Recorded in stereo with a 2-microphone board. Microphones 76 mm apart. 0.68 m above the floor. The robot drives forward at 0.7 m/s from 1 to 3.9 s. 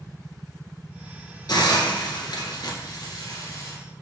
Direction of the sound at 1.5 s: 70° left (ahead or behind).